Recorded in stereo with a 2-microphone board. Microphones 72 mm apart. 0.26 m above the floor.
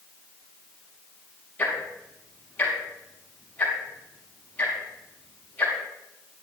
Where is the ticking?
20° left (ahead or behind), 6 m.